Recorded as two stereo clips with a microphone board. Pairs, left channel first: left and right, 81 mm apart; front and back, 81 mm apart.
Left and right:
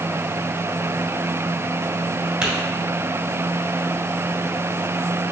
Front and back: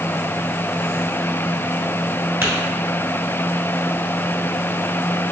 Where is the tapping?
155° right, 1.8 m.